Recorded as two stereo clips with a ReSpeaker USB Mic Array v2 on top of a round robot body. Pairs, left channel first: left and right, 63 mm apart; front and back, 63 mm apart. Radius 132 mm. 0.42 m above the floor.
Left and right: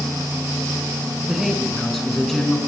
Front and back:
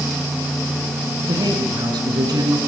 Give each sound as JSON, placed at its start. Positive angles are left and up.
{"t": 1.3, "sound": "a man speaking", "azimuth_deg": -175, "distance_m": 5.5}